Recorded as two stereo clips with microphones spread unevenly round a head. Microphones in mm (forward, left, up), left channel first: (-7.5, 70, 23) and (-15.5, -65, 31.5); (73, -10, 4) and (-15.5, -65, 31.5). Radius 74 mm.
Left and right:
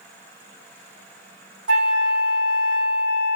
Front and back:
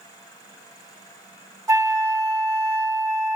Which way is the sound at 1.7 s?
90° right.